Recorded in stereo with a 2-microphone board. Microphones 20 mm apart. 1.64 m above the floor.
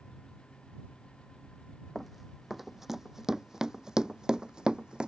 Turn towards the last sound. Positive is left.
turn(degrees=-45)  # may be behind; listen again after turning